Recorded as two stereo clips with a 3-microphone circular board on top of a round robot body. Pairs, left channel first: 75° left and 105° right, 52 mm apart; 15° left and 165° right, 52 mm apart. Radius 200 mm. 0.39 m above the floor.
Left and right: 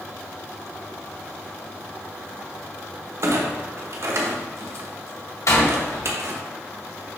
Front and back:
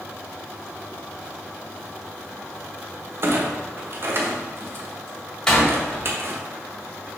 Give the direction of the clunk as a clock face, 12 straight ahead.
4 o'clock.